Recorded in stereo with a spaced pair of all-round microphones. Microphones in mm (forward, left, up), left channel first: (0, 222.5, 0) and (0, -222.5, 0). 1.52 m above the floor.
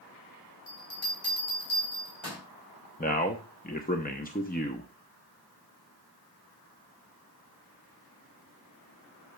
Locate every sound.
0.7 s a bell: 85° left, 3.5 m
3.0 s a man speaking: 20° left (ahead or behind), 0.7 m